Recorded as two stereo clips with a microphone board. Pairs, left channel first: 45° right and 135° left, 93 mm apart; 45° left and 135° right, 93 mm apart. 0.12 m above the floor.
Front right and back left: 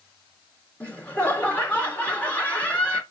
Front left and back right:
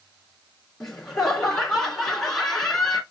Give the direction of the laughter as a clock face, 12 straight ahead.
1 o'clock.